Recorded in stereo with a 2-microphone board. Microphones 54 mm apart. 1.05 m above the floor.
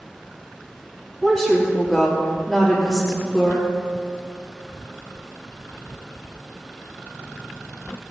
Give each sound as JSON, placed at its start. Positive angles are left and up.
{"t": 1.2, "sound": "a woman speaking", "side_deg": 5, "distance_m": 2.5}